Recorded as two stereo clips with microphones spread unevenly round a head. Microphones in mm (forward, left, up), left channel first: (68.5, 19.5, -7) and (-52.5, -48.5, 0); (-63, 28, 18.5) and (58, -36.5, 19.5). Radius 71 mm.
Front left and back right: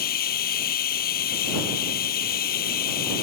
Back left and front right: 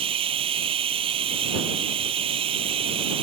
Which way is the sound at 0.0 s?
25° left.